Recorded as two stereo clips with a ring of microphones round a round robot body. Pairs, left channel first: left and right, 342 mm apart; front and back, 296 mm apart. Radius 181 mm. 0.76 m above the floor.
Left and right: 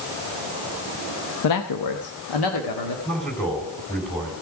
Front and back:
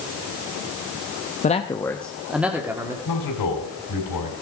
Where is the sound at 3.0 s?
Straight ahead, 3.5 m.